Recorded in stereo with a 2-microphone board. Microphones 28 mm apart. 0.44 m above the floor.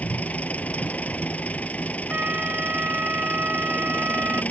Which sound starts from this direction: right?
A flute, at 2.1 s.